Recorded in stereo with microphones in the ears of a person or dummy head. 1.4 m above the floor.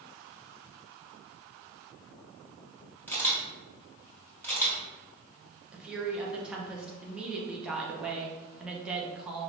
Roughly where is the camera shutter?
Centre.